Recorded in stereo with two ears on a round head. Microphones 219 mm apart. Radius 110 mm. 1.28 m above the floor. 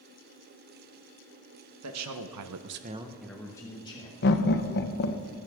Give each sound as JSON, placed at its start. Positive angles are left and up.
{"t": 1.8, "sound": "a man speaking", "side_deg": -70, "distance_m": 1.4}
{"t": 4.2, "sound": "laughter", "side_deg": 45, "distance_m": 1.1}